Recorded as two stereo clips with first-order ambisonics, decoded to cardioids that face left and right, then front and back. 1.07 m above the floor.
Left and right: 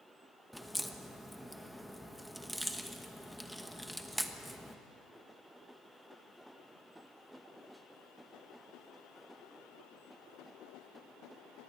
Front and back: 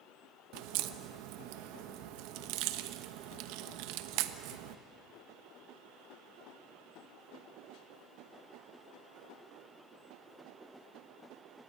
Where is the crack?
Straight behind, 1.1 m.